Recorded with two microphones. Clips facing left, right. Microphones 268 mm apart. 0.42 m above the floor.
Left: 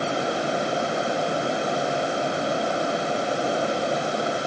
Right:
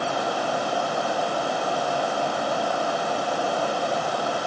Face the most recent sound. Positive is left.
No sound to turn to.